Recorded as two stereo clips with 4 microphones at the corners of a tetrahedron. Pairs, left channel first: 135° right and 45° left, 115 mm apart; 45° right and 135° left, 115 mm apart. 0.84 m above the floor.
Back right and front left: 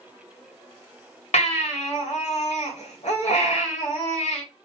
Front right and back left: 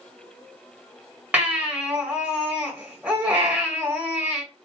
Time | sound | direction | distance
1.3 | a baby crying | 150° right | 1.8 m